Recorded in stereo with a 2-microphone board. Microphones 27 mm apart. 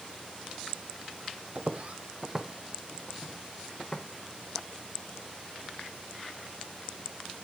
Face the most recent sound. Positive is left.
turn(degrees=15)  # may be behind; listen again after turning